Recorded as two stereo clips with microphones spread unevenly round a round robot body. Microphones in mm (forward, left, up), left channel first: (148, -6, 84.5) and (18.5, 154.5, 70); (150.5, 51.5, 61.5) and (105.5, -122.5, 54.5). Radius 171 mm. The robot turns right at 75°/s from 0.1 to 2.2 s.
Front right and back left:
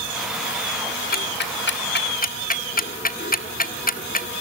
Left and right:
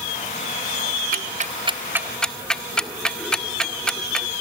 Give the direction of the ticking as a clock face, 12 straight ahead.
3 o'clock.